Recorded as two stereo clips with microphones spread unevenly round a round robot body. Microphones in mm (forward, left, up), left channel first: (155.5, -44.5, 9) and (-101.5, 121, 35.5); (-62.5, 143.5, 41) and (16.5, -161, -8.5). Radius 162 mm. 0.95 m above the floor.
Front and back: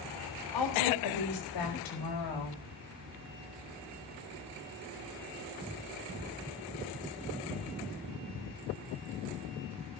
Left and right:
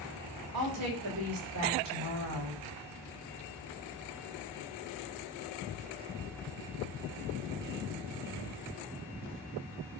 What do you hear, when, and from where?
0.5 s a woman speaking: 35° right, 3.5 m; by 2.6 s 20° right, 6.5 m